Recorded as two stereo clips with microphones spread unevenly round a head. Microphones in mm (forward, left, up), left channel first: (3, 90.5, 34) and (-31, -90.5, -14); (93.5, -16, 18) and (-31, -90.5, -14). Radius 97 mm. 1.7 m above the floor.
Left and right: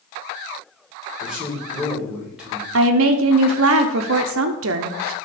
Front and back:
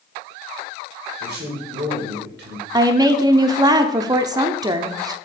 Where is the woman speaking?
80° right, 0.5 m.